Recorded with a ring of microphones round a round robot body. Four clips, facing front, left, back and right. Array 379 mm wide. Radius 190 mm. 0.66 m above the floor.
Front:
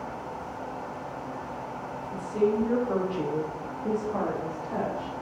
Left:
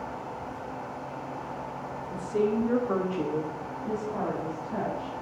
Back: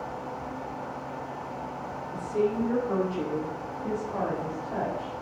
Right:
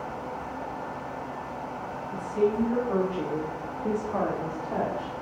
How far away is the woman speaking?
About 2 m.